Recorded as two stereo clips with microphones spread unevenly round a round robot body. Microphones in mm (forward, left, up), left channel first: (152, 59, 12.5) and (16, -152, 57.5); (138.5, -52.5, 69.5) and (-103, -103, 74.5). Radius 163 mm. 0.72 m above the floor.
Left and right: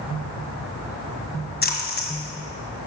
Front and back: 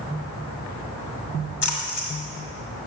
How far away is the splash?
About 1.8 m.